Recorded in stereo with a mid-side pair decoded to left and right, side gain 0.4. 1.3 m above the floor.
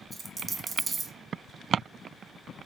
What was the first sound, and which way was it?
A dropped coin, 35° right.